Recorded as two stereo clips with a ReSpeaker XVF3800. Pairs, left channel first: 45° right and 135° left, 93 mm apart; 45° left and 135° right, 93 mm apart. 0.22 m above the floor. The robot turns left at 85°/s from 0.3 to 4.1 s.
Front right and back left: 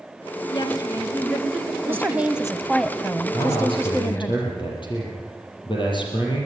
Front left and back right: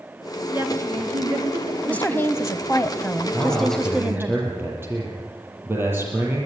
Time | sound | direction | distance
0.5 | a woman speaking | 60° right | 3.5 m
1.9 | a woman speaking | 105° left | 1.2 m
3.3 | a man speaking | 5° right | 7 m